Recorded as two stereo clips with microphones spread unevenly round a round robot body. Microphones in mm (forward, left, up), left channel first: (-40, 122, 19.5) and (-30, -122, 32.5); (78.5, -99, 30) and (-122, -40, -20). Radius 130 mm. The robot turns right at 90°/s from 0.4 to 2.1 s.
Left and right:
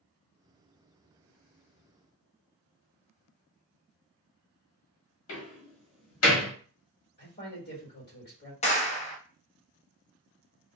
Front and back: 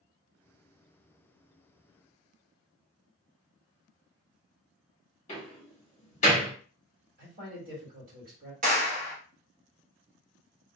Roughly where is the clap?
Behind left.